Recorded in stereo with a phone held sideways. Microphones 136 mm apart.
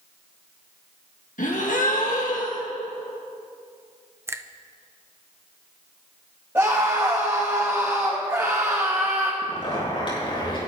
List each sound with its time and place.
1.4 s a gasp: 75° left (ahead or behind), 1.7 m
4.3 s a finger snap: 20° right (ahead or behind), 0.6 m
6.5 s a scream: 20° right (ahead or behind), 2.5 m
9.4 s a zipper: 40° left (ahead or behind), 5 m